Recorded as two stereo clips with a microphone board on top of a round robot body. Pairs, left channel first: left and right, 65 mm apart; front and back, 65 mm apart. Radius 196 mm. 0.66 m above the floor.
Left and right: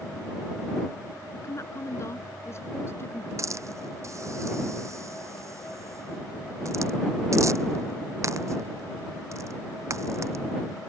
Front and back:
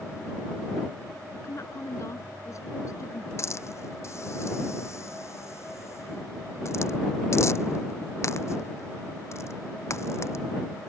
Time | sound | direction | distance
1.3 | a woman speaking | 45° left | ?
3.4 | a hiss | 45° right | ?